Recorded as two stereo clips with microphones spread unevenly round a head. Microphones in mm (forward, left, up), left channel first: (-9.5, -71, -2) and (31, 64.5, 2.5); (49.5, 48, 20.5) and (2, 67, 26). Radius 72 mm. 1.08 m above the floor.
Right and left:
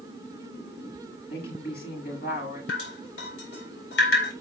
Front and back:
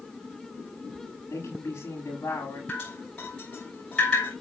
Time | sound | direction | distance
1.3 | a woman speaking | 90° right | 8 m
2.7 | dripping | 105° right | 4.5 m